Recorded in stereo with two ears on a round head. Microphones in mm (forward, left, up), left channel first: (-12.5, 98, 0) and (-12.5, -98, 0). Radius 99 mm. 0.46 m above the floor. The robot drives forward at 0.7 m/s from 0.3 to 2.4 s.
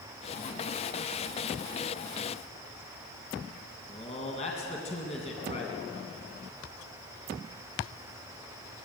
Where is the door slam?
No door slam in this recording.